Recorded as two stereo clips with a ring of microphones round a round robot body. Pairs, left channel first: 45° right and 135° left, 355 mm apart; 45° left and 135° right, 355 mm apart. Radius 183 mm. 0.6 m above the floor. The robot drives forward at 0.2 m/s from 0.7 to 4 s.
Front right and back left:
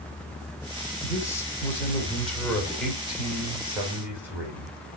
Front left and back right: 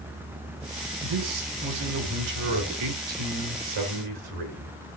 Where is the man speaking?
125° right, 1.6 m; by 4.7 s 140° right, 2.0 m.